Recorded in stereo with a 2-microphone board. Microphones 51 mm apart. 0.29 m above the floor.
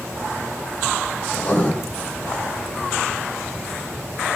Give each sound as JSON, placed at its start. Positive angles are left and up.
{"t": 1.3, "sound": "writing", "side_deg": 30, "distance_m": 5.0}